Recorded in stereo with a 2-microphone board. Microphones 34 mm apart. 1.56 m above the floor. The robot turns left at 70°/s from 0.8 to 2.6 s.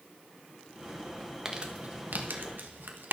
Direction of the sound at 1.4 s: 15° right (ahead or behind).